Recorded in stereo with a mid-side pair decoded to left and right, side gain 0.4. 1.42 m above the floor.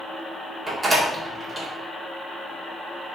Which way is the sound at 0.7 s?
30° right.